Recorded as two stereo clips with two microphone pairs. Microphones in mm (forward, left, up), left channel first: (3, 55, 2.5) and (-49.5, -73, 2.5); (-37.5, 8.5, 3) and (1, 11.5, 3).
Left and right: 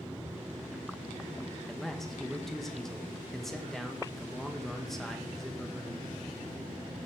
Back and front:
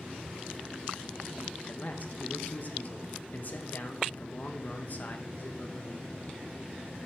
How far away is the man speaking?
About 1.3 m.